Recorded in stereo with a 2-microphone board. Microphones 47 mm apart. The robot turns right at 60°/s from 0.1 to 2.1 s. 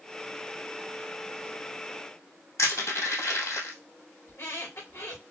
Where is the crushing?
85° left, 2.5 m.